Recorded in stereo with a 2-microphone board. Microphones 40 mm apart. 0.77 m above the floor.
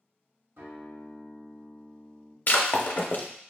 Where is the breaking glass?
50° left (ahead or behind), 0.5 m.